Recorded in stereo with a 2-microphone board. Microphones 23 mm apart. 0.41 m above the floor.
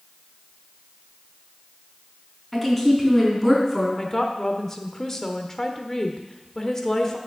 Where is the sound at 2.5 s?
Centre (ahead or behind), 4.5 m.